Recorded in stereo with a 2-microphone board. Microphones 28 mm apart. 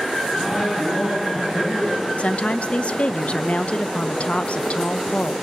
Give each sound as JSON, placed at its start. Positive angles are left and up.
{"t": 0.3, "sound": "a man speaking", "side_deg": 10, "distance_m": 8.0}
{"t": 2.2, "sound": "a woman speaking", "side_deg": 50, "distance_m": 0.7}